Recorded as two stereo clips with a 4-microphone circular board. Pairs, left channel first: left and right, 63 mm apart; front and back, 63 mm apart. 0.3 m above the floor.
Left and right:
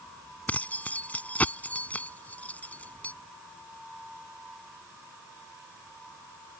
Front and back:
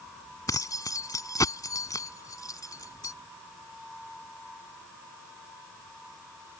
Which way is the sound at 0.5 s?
25° left.